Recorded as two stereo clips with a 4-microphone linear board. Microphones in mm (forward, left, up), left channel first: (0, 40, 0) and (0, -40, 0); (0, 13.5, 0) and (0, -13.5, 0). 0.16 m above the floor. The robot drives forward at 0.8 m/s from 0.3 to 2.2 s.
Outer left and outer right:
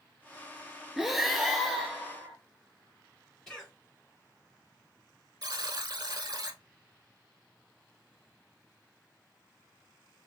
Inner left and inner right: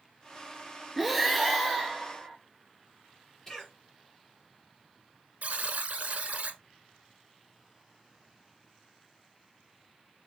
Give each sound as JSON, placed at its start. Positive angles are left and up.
{"t": 1.0, "sound": "breathing", "side_deg": -5, "distance_m": 0.5}
{"t": 3.5, "sound": "a cough", "side_deg": 10, "distance_m": 2.5}
{"t": 5.4, "sound": "a buzzer", "side_deg": -55, "distance_m": 0.7}